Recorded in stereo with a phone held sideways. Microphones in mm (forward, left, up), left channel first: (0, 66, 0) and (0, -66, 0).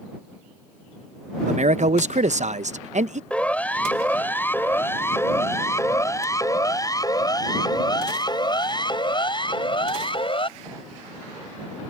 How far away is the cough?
No cough in this recording.